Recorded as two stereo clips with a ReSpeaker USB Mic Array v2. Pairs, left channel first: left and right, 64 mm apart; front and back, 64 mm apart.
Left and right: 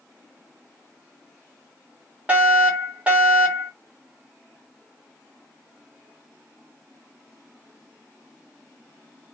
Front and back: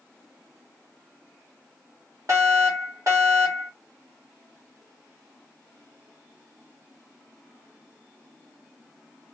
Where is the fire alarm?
160° right, 2.5 m.